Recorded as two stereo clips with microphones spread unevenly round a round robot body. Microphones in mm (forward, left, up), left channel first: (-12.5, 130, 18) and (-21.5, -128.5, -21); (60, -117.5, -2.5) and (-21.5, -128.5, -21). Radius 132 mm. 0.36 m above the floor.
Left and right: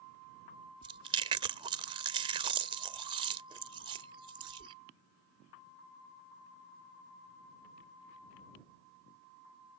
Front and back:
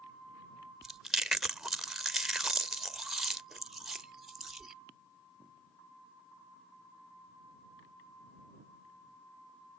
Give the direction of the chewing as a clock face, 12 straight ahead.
4 o'clock.